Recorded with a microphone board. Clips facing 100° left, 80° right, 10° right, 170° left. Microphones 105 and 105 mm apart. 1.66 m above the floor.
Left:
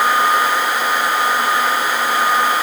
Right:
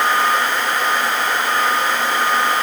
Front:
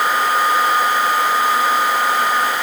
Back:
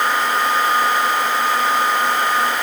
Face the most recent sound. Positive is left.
No sound to turn to.